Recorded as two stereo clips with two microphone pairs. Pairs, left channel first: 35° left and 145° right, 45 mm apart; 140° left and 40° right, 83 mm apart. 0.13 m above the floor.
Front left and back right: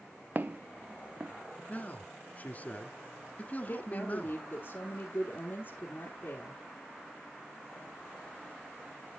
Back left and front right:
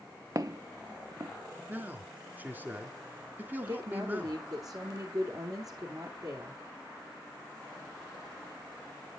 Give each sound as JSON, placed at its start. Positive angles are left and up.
{"t": 0.3, "sound": "footsteps", "azimuth_deg": -90, "distance_m": 0.5}
{"t": 1.7, "sound": "a man speaking", "azimuth_deg": 20, "distance_m": 1.3}
{"t": 3.7, "sound": "a woman speaking", "azimuth_deg": -5, "distance_m": 2.0}